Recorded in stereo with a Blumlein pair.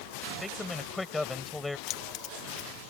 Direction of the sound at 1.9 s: 35° left.